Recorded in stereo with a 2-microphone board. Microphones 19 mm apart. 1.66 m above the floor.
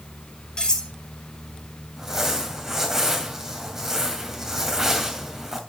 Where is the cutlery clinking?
40° left (ahead or behind), 3 m.